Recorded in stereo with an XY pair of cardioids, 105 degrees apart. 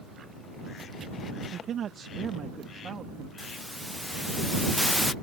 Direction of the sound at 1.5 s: 60° right.